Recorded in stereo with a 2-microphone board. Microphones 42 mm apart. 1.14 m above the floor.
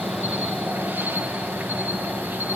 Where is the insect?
50° right (ahead or behind), 0.8 m.